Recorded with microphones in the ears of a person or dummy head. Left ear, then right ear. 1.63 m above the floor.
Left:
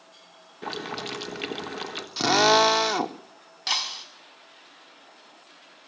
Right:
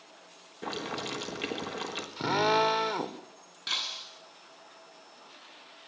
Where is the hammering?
I don't hear hammering.